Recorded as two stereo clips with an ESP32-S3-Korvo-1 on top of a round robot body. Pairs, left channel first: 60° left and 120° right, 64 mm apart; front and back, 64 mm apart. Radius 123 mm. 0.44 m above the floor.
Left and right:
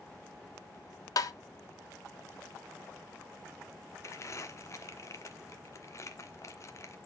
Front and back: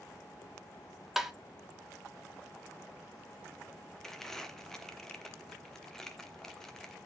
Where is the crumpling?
80° left, 1.3 m.